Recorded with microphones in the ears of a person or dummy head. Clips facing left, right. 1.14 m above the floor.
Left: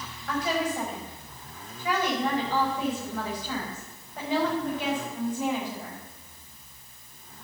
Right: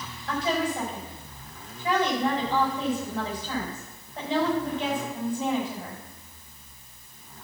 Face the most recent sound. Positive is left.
turn(degrees=-30)  # may be behind; listen again after turning